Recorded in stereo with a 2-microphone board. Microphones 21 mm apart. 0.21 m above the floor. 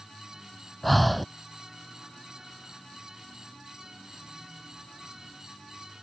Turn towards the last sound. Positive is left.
turn(degrees=0)  # may be behind; listen again after turning